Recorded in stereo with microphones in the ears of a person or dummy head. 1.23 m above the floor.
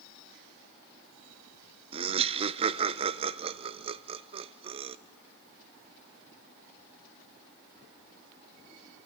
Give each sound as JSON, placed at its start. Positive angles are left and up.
{"t": 1.9, "sound": "laughter", "side_deg": -35, "distance_m": 0.5}